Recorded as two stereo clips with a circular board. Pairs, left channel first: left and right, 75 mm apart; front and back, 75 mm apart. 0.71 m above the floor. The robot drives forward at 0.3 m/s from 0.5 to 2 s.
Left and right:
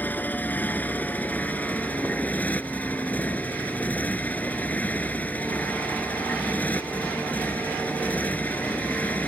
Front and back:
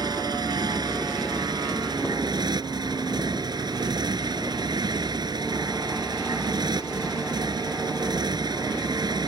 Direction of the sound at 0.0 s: 155° left.